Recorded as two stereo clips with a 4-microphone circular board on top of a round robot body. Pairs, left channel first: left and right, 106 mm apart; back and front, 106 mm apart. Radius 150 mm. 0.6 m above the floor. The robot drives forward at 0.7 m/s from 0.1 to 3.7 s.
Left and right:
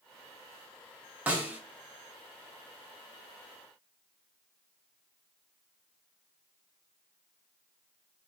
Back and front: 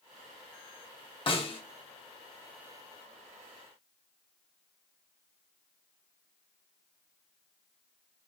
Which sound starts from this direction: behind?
A snare drum, at 1.3 s.